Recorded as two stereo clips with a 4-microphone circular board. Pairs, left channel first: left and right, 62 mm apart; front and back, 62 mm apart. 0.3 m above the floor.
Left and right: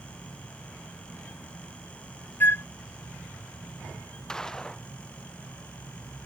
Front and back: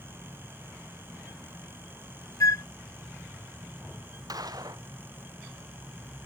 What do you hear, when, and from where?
2.4 s a flute: 35° left
4.3 s a gunshot: 170° left